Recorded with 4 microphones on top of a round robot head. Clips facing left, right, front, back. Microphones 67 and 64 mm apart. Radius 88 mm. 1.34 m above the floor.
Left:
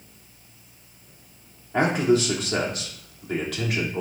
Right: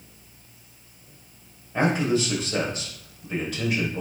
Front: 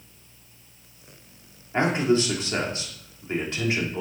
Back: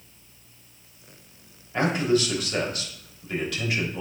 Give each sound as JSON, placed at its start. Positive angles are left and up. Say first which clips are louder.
{"t": 1.7, "sound": "a man speaking", "louder": "left 2 dB, front 1 dB", "azimuth_deg": 60, "distance_m": 3.0}